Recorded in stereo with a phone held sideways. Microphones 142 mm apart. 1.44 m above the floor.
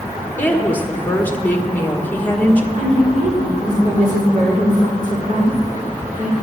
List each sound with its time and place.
0.4 s a woman speaking: 15° left (ahead or behind), 1.5 m
2.7 s a woman speaking: 75° right (ahead or behind), 5 m